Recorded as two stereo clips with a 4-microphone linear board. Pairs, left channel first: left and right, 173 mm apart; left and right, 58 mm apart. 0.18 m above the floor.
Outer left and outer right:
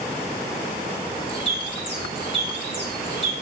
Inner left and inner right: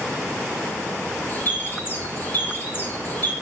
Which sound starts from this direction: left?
A bird, at 1.3 s.